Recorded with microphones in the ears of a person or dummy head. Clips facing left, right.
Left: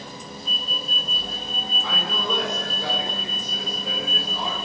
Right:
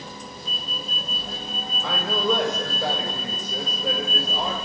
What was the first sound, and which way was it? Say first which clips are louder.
A man speaking: right 6 dB; 60° right (ahead or behind).